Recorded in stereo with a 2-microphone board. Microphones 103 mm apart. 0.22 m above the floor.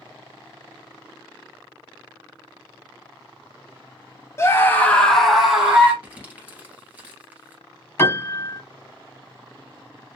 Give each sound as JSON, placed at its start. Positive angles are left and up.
{"t": 4.4, "sound": "a scream", "side_deg": 30, "distance_m": 1.4}
{"t": 6.0, "sound": "crumpling", "side_deg": -15, "distance_m": 1.8}
{"t": 8.0, "sound": "a piano", "side_deg": 30, "distance_m": 1.3}